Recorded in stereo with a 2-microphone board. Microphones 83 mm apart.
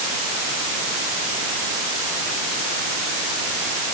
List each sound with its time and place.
Only background noise.